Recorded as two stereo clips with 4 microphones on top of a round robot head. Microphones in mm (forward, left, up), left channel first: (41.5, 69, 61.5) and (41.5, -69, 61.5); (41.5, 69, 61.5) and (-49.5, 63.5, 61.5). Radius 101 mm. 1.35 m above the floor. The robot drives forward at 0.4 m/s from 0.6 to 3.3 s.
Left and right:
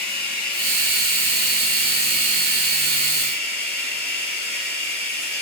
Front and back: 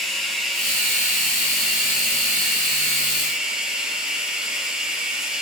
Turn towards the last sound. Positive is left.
turn(degrees=95)